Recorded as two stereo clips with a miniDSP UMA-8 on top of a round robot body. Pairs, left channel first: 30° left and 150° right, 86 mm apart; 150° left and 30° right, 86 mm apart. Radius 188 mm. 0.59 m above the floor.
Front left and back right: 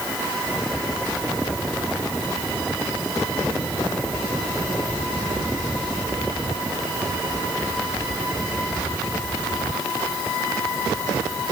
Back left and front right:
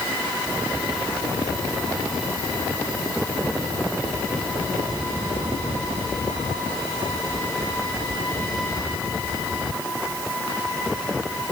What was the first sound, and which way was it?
Only background noise.